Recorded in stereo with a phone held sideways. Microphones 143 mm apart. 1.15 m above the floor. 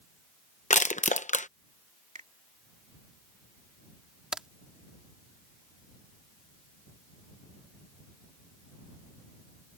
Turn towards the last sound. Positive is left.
turn(degrees=-5)  # may be behind; listen again after turning